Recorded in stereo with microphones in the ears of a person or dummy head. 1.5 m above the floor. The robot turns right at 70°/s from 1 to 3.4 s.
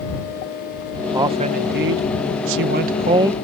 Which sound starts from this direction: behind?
A man speaking, at 1.1 s.